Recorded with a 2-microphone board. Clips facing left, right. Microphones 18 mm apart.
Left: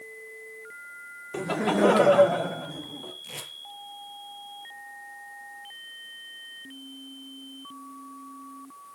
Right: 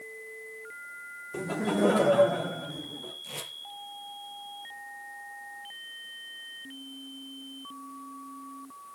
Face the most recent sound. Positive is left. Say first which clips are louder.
# even
turn(degrees=15)  # may be behind; listen again after turning